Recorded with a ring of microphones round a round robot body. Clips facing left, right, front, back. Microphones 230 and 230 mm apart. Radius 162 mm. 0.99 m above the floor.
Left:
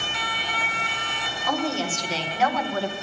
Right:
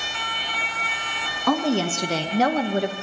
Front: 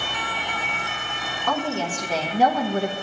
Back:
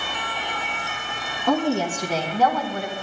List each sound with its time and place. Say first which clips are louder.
1.5 s a woman speaking: right 5 dB, back 5 dB; 105° right, 1.2 m; by 2.9 s 20° right, 0.7 m